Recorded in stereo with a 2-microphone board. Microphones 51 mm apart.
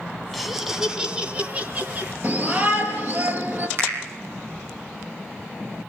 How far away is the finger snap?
About 9 m.